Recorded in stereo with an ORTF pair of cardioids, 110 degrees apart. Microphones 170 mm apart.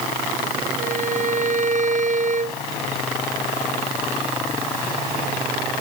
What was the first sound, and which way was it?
A violin, 50° right.